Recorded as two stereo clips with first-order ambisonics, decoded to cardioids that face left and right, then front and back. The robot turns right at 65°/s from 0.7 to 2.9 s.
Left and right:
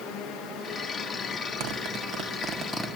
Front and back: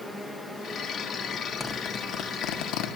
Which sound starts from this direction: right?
A zipper, at 1.6 s.